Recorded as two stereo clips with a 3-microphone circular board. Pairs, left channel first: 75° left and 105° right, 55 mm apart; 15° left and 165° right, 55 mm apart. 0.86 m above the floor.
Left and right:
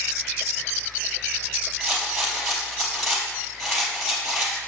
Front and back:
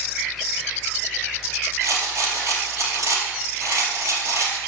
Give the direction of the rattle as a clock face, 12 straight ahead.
6 o'clock.